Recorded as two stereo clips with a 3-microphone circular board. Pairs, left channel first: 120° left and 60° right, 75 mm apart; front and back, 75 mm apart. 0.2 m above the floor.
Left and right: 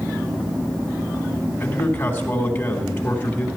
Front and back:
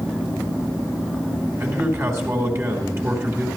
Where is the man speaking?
170° left, 1.9 m.